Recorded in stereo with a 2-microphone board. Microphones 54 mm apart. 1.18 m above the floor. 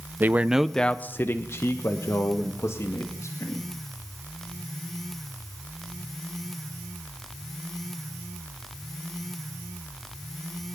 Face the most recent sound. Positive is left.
turn(degrees=75)  # may be behind; listen again after turning